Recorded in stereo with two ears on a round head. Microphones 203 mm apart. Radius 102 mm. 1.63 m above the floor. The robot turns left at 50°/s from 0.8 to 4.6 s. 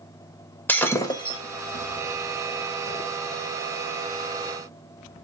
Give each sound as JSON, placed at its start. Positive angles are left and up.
{"t": 0.7, "sound": "breaking glass", "side_deg": 10, "distance_m": 1.1}